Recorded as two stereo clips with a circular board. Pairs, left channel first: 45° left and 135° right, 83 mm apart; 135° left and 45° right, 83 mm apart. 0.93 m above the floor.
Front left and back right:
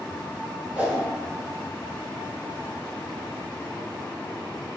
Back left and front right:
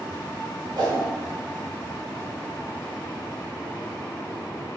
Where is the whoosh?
60° right, 1.7 m.